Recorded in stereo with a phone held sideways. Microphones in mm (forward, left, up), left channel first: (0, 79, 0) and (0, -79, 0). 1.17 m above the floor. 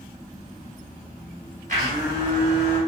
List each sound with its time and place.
1.7 s a blender: 50° right (ahead or behind), 2.5 m